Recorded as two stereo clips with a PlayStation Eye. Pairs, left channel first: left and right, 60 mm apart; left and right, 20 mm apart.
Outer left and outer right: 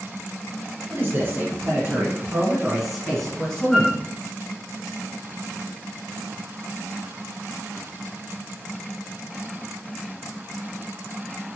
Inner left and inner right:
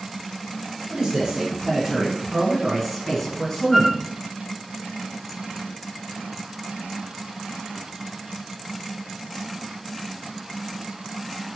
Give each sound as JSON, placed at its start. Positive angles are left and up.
{"t": 0.9, "sound": "a man speaking", "side_deg": -40, "distance_m": 2.0}
{"t": 3.7, "sound": "a flute", "side_deg": 5, "distance_m": 1.4}